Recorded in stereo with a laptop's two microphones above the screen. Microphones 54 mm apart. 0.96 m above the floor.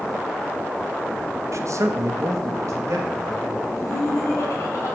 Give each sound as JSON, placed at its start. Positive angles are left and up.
{"t": 1.5, "sound": "a man speaking", "side_deg": -65, "distance_m": 0.6}
{"t": 3.7, "sound": "laughter", "side_deg": 65, "distance_m": 1.7}